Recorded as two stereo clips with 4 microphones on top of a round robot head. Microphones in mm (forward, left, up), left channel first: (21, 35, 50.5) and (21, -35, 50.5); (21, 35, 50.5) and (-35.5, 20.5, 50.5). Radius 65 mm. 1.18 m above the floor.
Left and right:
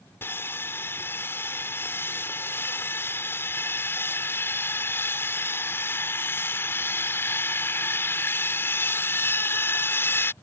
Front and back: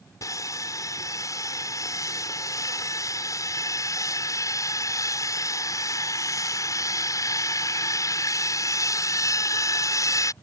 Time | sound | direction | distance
0.2 | sawing | 35° left | ?